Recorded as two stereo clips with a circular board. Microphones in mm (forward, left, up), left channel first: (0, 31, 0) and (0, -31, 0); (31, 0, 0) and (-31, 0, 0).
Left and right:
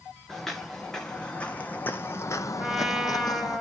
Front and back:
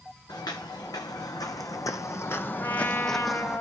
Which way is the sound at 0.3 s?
5° left.